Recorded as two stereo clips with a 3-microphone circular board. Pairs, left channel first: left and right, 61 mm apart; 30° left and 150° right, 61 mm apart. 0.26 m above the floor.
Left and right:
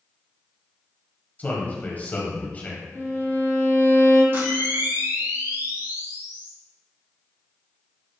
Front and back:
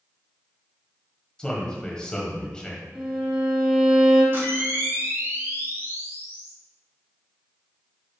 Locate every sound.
1.4 s a man speaking: 85° left, 1.5 m
2.9 s a violin: 125° left, 2.5 m
4.3 s a camera shutter: 120° right, 2 m